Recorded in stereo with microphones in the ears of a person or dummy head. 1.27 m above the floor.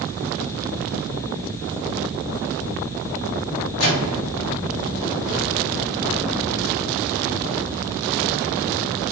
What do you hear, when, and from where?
3.8 s a microwave: 75° left (ahead or behind), 1.1 m